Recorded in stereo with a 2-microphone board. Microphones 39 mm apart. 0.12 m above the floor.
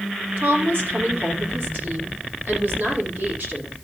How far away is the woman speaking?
About 4 m.